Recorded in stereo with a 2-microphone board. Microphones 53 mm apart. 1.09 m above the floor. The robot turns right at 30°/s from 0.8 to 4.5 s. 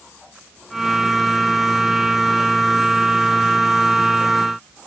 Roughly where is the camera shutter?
I don't hear a camera shutter.